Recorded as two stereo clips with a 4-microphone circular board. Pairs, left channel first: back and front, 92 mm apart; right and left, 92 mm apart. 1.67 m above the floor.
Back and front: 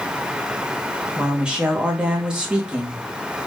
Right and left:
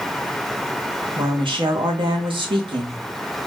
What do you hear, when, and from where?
1.2 s a woman speaking: 80° left, 1.2 m